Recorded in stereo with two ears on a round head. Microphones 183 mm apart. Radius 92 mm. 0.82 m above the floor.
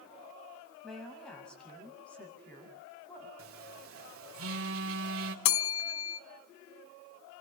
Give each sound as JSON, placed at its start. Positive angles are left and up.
{"t": 0.8, "sound": "a woman speaking", "side_deg": 0, "distance_m": 5.5}
{"t": 3.4, "sound": "a phone buzzing", "side_deg": -70, "distance_m": 3.0}
{"t": 5.5, "sound": "a bell", "side_deg": 65, "distance_m": 1.0}